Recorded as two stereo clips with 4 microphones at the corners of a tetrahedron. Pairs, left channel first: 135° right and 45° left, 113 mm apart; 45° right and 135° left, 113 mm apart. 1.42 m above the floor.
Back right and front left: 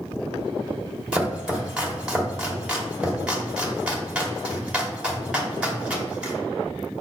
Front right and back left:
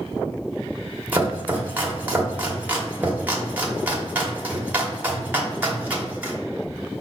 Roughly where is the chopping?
Left.